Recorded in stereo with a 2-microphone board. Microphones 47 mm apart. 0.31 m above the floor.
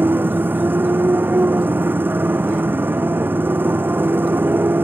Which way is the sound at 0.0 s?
45° right (ahead or behind).